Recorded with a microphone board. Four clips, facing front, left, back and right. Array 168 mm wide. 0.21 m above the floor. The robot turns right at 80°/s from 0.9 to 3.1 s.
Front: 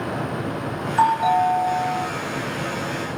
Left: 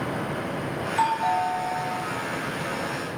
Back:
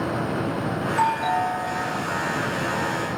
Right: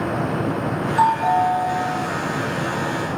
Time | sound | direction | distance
0.9 | a doorbell | 55° right | 2.5 m